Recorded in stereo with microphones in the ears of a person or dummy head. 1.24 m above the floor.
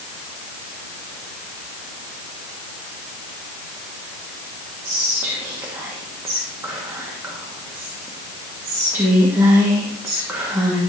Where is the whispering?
10° right (ahead or behind), 1.5 m.